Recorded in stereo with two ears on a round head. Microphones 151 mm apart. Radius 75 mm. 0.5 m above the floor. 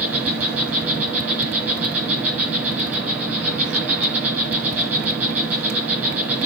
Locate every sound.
0.0 s an insect: 10° right (ahead or behind), 4 m